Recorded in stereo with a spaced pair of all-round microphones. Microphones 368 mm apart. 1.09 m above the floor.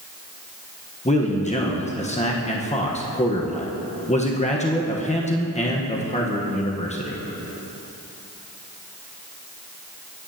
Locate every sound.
1.1 s a man speaking: 20° left (ahead or behind), 1.0 m